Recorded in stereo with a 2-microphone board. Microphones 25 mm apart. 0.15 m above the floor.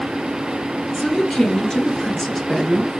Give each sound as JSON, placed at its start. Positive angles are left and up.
{"t": 0.9, "sound": "a woman speaking", "side_deg": 35, "distance_m": 2.5}